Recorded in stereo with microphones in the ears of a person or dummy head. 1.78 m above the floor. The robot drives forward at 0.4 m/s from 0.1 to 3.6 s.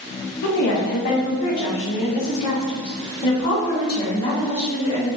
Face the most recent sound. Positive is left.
turn(degrees=25)  # may be behind; listen again after turning